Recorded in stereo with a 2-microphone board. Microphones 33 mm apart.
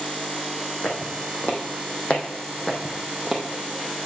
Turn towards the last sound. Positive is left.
turn(degrees=-5)  # may be behind; listen again after turning